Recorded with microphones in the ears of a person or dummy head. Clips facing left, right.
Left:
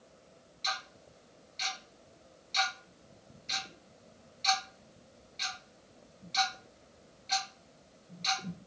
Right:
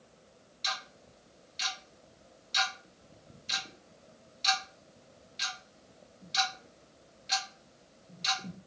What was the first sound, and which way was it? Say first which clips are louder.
Ticking: left 1 dB; 10° right (ahead or behind).